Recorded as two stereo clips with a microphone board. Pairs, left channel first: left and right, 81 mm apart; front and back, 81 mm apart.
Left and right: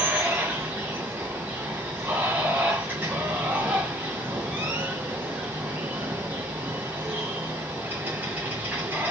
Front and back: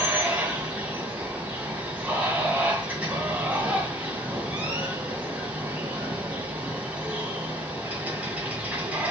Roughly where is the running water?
Behind right.